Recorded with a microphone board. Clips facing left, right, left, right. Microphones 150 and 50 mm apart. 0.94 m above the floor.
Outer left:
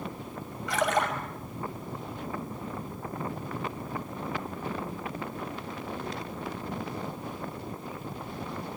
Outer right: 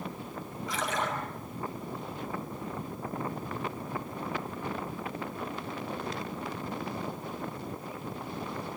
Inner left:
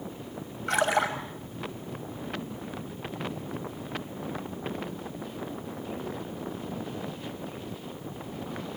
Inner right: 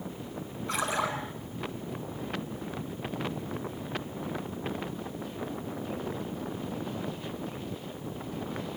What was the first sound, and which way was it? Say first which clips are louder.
A splash: outer left 6 dB, inner left 5 dB; 80° left.